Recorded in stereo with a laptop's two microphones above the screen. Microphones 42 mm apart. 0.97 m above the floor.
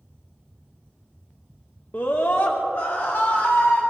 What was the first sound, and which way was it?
A scream, 50° left (ahead or behind).